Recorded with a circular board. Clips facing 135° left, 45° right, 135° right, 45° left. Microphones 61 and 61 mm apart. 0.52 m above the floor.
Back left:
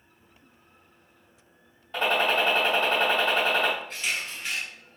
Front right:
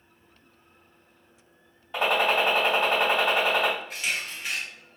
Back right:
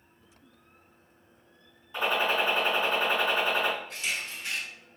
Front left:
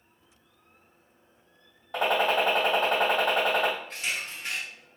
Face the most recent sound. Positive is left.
turn(degrees=30)